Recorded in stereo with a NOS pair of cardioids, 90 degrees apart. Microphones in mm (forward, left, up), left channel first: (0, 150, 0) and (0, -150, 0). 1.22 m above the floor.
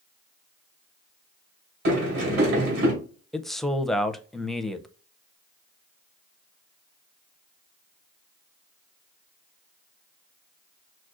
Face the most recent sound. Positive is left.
turn(degrees=0)